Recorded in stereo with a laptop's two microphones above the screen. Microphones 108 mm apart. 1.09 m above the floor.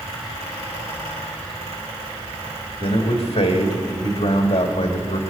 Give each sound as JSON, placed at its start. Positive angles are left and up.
{"t": 0.0, "sound": "a fan", "side_deg": -75, "distance_m": 5.0}
{"t": 2.8, "sound": "a man speaking", "side_deg": 60, "distance_m": 1.8}